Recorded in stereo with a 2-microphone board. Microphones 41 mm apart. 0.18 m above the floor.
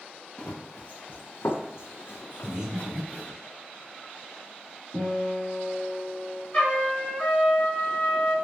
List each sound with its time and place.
0.4 s running footsteps: 30° left (ahead or behind), 1.0 m; by 3.3 s 45° left (ahead or behind), 1.1 m
2.4 s breathing: 20° right (ahead or behind), 0.8 m
4.9 s a guitar: 30° left (ahead or behind), 1.8 m
6.5 s a trumpet: 25° left (ahead or behind), 2.0 m